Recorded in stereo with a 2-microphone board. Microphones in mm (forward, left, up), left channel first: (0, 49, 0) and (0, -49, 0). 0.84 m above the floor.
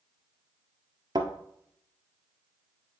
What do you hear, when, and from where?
1.1 s a thud: 45° right (ahead or behind), 1.2 m